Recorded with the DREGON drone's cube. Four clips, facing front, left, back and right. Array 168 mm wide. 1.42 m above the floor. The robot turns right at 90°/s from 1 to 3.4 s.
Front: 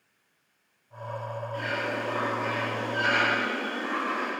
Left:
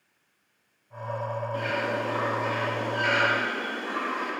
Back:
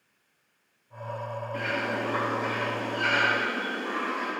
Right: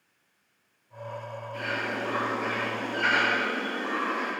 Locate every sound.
1.5 s a bird: 160° left, 3.5 m; by 4.3 s 35° right, 3.5 m